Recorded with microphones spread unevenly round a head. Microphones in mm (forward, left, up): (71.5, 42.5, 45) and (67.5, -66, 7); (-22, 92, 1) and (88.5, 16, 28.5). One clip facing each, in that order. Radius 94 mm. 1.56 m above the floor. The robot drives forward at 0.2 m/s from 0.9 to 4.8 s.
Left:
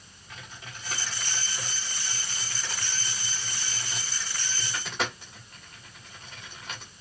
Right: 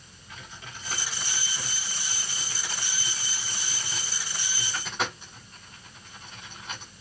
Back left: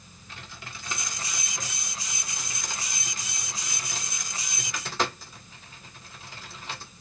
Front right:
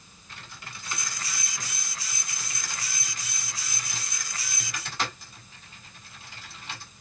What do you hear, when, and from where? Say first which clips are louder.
0.3 s typing on a keyboard: right 1 dB, back left 1 dB; 165° left, 1.7 m; by 6.9 s 170° left, 2.5 m